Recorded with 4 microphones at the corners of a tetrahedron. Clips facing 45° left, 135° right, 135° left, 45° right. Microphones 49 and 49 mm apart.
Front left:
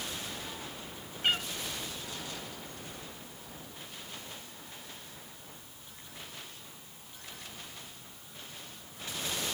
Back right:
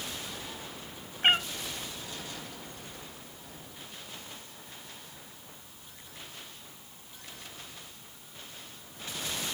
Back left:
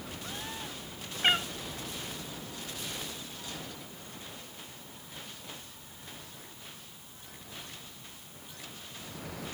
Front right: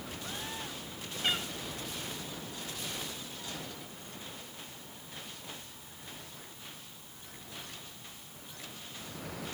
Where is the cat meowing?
175° left, 0.6 m.